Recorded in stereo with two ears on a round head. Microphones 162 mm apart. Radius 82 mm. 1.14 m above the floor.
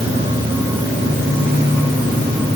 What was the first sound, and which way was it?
Only background noise.